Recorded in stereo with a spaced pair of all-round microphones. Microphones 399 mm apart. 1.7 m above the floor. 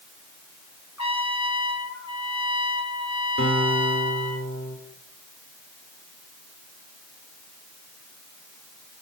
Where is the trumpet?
40° left (ahead or behind), 1.4 m.